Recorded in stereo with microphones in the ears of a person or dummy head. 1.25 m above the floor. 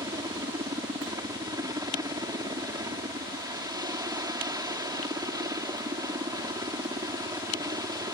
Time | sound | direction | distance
0.0 | a helicopter | 15° right (ahead or behind) | ?